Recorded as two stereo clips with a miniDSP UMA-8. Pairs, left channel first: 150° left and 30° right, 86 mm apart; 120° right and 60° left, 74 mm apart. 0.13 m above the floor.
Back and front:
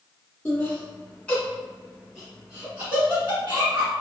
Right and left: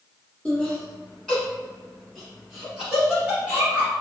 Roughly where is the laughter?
Behind.